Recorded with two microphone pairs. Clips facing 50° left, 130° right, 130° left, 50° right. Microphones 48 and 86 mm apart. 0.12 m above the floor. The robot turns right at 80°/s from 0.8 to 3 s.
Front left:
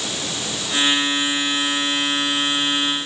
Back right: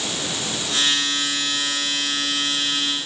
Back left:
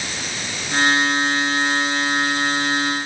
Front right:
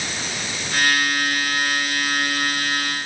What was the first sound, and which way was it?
Only background noise.